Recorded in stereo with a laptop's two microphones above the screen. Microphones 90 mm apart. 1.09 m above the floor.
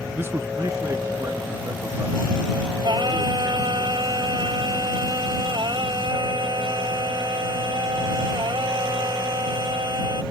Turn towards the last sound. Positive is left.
turn(degrees=-60)  # may be behind; listen again after turning